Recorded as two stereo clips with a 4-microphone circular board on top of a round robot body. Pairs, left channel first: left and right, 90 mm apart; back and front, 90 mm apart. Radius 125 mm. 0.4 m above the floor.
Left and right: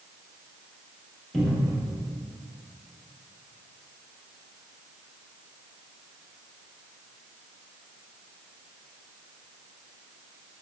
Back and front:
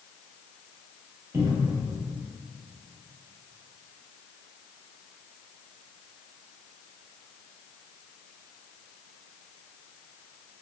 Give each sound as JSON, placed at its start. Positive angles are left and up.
{"t": 1.3, "sound": "a cupboard door", "azimuth_deg": 0, "distance_m": 0.9}